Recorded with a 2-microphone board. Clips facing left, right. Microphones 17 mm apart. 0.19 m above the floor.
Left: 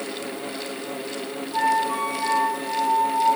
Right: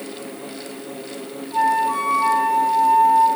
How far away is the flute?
About 1.1 m.